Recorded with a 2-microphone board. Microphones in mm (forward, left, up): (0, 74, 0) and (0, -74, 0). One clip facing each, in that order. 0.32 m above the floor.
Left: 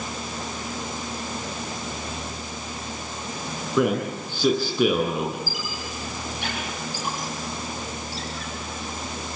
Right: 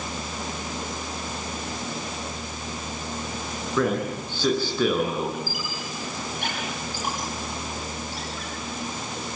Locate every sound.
3.8 s a man speaking: 10° left (ahead or behind), 8.5 m
5.5 s a squeak: 60° right (ahead or behind), 8 m